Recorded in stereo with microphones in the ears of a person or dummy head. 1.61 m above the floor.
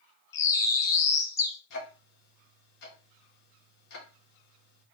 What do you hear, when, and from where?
0.3 s a bird: 15° left (ahead or behind), 0.8 m
1.7 s ticking: 60° left (ahead or behind), 1.8 m